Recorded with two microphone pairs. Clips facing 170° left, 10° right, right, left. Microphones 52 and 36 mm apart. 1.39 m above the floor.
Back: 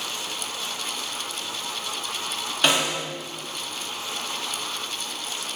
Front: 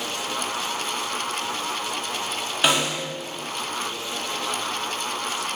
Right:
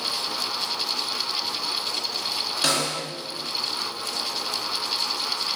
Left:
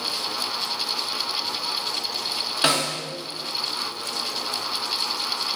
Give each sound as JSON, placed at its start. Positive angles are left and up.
{"t": 2.6, "sound": "a snare drum", "azimuth_deg": 65, "distance_m": 1.0}